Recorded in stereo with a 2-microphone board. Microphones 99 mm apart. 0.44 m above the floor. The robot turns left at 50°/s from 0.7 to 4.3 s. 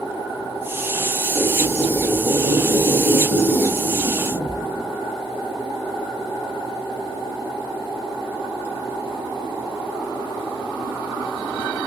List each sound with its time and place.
1.4 s a squeak: 15° right, 0.7 m; by 4.8 s 160° right, 0.7 m